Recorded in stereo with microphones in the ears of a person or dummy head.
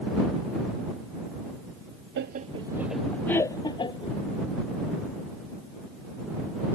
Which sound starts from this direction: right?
Laughter, at 2.2 s.